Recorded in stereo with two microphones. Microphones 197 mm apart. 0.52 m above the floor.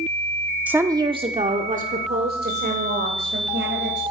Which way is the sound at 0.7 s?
5° right (ahead or behind).